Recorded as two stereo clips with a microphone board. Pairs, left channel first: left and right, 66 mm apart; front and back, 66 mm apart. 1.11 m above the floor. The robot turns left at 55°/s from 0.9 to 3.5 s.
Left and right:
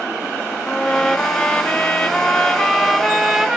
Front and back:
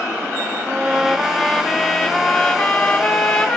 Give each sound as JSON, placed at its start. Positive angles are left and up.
{"t": 0.6, "sound": "a trumpet", "azimuth_deg": 115, "distance_m": 0.9}